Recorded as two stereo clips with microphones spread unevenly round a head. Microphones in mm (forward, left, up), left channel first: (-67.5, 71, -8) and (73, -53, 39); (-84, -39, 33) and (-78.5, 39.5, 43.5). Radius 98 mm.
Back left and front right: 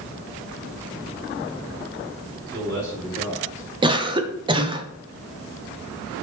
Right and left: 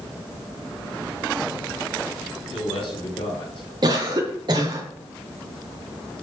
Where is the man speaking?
100° right, 4.5 m.